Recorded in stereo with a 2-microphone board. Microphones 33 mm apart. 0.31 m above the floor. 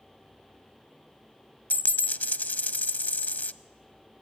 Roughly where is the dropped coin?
Left.